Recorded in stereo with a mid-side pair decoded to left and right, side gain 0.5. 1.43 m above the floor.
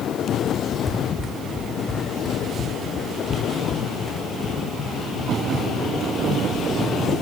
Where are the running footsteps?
15° left, 7 m; by 7.2 s 45° left, 12 m.